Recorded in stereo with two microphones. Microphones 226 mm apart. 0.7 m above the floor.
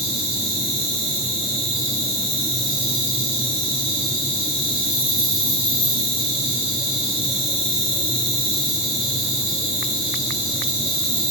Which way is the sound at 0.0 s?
65° left (ahead or behind).